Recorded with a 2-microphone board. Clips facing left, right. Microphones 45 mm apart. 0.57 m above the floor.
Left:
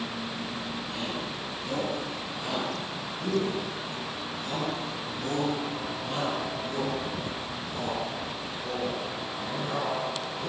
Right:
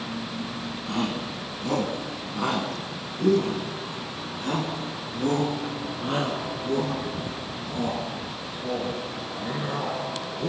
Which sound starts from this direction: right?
A shout, at 0.9 s.